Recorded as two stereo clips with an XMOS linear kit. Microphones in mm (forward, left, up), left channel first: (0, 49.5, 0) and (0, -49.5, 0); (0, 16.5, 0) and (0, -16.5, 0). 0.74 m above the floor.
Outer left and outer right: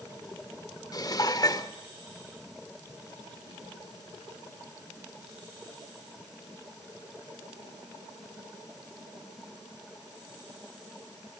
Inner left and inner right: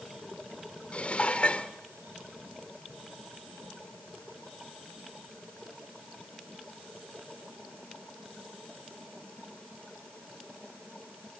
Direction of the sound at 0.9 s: 40° left (ahead or behind).